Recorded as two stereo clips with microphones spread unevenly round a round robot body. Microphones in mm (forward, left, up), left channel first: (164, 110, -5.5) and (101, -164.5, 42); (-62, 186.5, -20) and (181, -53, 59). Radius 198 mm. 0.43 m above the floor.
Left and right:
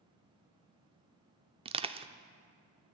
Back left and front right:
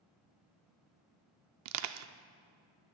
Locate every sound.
1.6 s crushing: 30° right, 0.5 m